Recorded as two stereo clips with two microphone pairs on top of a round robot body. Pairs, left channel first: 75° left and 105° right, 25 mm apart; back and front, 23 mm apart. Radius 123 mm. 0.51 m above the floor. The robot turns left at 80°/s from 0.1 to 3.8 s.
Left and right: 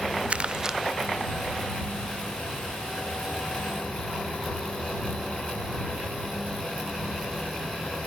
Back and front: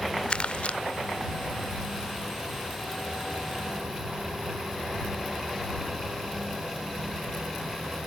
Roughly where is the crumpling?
Behind right.